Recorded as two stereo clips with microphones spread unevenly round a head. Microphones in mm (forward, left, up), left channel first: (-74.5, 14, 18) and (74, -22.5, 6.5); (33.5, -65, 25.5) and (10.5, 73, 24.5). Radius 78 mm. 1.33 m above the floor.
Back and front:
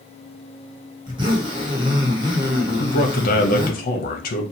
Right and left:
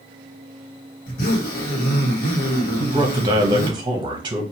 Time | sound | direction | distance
1.1 | a zipper | 70° right | 1.2 m
2.8 | a man speaking | 150° left | 0.8 m